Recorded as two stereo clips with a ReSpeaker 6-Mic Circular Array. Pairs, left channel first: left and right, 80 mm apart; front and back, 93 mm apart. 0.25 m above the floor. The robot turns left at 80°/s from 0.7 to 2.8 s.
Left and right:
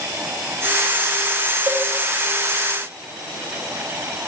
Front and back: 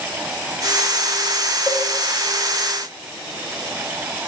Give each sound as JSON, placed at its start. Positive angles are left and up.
{"t": 1.7, "sound": "a cowbell", "azimuth_deg": -65, "distance_m": 0.6}